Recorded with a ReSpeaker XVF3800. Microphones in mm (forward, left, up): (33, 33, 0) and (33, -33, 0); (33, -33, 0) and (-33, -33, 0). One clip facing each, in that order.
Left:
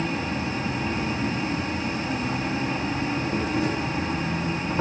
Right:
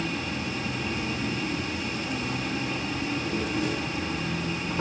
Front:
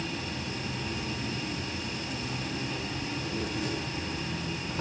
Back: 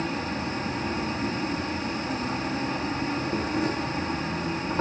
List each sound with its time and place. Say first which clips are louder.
0.0 s an insect: left 4 dB, back 6 dB; 140° left, 2.5 m